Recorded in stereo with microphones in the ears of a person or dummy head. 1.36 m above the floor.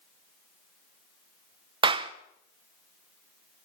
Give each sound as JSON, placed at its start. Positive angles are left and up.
{"t": 1.8, "sound": "a clap", "side_deg": -30, "distance_m": 0.7}